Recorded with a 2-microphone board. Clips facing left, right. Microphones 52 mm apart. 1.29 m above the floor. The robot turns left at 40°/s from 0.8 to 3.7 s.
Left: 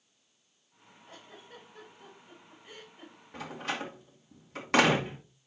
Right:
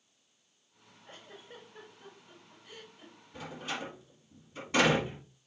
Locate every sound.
1.1 s a giggle: 30° right (ahead or behind), 4.5 m; by 3.1 s 50° left (ahead or behind), 4.5 m
3.3 s a door slam: 65° left (ahead or behind), 2 m; by 5.2 s 80° left, 2 m